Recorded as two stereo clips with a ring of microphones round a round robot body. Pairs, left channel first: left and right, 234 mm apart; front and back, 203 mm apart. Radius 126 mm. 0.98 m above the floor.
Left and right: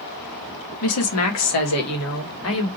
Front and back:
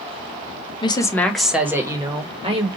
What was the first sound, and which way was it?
A woman speaking, 65° left.